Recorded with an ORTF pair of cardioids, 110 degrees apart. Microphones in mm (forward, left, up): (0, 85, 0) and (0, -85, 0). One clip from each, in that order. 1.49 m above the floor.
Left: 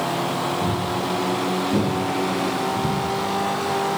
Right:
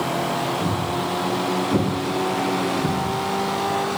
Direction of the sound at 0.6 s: 5° right.